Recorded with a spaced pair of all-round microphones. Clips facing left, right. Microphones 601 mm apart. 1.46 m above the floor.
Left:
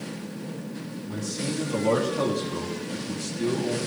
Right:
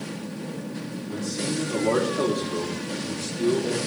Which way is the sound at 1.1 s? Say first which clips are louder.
Right 2 dB; 40° left (ahead or behind).